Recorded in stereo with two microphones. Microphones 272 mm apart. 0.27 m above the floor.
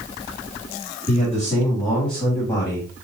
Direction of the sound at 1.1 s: 5° right (ahead or behind).